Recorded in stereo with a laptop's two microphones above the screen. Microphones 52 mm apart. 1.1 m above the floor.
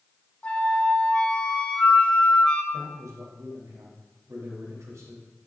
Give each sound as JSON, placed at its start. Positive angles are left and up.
{"t": 0.4, "sound": "a flute", "side_deg": 25, "distance_m": 1.1}
{"t": 2.7, "sound": "a man speaking", "side_deg": -85, "distance_m": 4.5}